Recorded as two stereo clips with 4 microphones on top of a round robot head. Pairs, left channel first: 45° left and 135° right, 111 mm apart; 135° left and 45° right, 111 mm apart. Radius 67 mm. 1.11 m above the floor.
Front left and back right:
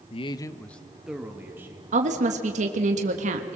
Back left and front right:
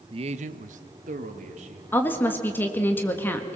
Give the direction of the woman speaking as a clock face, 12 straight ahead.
5 o'clock.